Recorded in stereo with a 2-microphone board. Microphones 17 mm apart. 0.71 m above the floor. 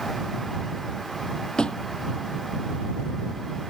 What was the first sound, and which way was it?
A thud, 85° left.